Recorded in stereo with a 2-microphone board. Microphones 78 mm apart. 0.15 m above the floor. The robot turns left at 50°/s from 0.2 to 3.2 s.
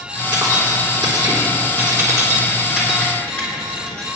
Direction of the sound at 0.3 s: 50° right (ahead or behind).